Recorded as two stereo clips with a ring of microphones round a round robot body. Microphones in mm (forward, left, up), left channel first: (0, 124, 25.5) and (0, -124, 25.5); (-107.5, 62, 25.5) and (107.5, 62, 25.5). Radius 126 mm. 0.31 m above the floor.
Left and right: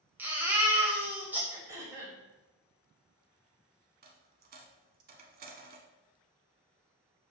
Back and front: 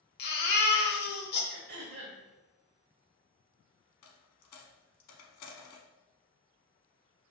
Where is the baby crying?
170° right, 0.9 m.